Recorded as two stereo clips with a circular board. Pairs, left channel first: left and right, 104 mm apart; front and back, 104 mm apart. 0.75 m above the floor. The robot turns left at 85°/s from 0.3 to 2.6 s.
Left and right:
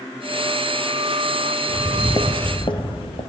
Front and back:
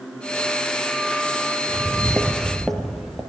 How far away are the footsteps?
About 0.7 m.